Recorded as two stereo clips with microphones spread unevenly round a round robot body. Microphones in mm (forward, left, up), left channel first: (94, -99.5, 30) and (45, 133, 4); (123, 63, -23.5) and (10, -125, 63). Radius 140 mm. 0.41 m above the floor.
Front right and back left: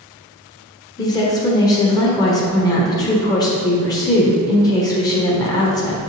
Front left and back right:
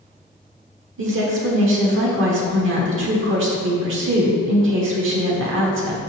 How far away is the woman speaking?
About 1.4 m.